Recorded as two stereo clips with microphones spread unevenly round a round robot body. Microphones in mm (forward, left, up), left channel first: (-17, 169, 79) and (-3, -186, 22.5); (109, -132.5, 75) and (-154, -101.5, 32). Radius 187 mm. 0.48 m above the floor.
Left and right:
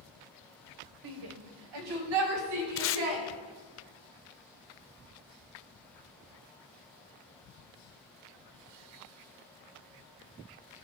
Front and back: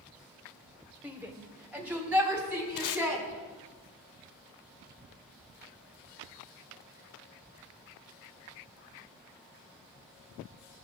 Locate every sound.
1.0 s a shout: 105° right, 1.7 m
2.8 s tape being pulled: 30° left, 0.6 m